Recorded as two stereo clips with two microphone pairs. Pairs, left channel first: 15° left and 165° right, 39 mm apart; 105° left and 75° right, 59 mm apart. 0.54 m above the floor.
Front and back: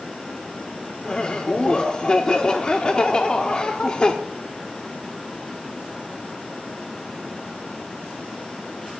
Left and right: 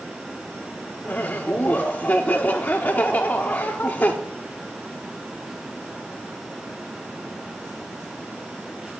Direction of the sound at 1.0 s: 65° left.